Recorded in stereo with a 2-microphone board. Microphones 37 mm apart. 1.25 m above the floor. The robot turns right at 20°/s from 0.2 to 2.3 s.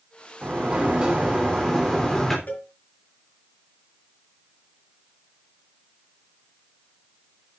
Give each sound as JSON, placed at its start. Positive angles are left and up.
{"t": 0.4, "sound": "a sliding door", "azimuth_deg": -30, "distance_m": 3.0}
{"t": 2.5, "sound": "a cowbell", "side_deg": 60, "distance_m": 6.0}